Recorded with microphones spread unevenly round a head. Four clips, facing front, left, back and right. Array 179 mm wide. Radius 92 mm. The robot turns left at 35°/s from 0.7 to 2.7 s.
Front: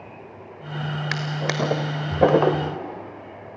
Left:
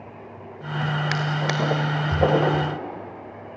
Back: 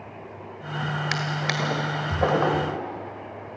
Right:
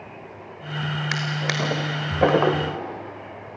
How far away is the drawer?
About 1.1 m.